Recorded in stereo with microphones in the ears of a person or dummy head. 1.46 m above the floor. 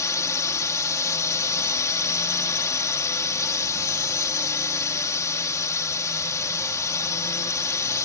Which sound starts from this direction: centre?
A drone, at 0.0 s.